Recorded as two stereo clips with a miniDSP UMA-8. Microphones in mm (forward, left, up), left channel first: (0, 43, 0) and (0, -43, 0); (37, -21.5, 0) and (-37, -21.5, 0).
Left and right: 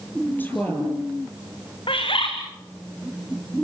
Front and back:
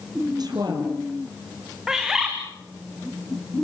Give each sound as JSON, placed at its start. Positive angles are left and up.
{"t": 0.4, "sound": "a woman speaking", "azimuth_deg": 160, "distance_m": 4.5}
{"t": 1.9, "sound": "a bird", "azimuth_deg": 100, "distance_m": 3.5}